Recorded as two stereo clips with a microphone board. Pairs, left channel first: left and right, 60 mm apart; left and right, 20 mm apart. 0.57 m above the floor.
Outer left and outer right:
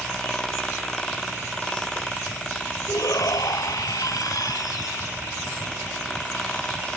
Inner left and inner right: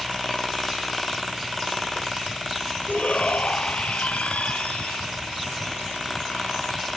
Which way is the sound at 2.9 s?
75° left (ahead or behind).